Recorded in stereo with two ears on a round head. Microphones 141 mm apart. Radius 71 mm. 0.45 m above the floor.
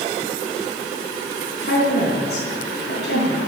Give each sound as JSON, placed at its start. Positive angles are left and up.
{"t": 1.6, "sound": "a woman speaking", "side_deg": 75, "distance_m": 4.5}